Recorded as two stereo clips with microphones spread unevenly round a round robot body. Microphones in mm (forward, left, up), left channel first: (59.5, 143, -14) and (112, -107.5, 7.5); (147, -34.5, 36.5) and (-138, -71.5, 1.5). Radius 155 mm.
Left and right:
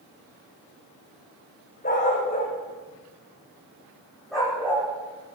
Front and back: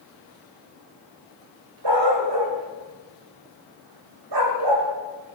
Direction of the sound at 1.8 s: 170° left.